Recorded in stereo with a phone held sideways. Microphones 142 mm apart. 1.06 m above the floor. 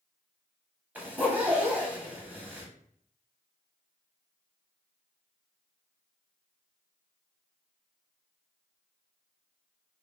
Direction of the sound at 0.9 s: 15° right (ahead or behind).